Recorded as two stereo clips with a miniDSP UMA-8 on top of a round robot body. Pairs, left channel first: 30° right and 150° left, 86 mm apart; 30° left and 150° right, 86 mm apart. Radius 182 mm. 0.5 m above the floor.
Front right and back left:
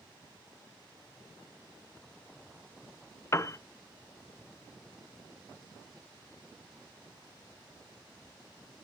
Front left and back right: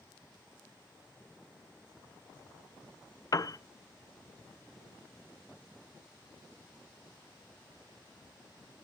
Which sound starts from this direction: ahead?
A piano, at 3.3 s.